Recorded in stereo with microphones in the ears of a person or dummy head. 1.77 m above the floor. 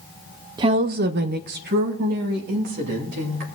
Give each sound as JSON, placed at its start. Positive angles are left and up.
{"t": 0.6, "sound": "a woman speaking", "side_deg": -25, "distance_m": 0.6}